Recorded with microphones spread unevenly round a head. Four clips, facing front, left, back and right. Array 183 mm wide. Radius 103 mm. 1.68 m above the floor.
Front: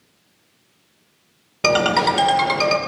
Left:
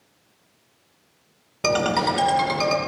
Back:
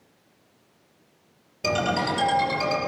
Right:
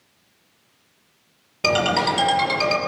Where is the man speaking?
No man speaking in this recording.